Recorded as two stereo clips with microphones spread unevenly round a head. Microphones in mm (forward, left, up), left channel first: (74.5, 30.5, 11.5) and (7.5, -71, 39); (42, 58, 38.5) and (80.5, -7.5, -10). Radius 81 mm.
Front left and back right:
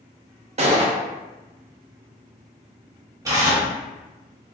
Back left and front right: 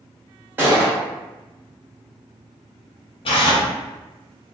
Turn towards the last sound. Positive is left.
turn(degrees=165)